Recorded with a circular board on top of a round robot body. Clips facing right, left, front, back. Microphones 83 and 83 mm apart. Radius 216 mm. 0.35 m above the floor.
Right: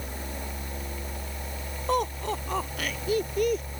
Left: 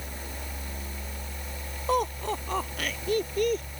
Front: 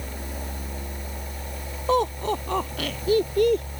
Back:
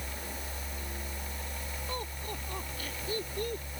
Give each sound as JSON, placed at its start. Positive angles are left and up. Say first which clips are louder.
{"t": 1.9, "sound": "laughter", "louder": "even, front 19 dB", "azimuth_deg": 0}